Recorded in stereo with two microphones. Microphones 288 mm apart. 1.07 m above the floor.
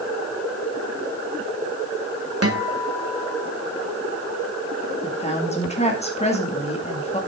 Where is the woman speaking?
20° left (ahead or behind), 2 m.